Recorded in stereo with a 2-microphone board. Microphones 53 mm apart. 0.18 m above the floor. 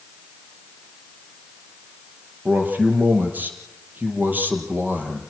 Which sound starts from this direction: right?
A man speaking, at 2.5 s.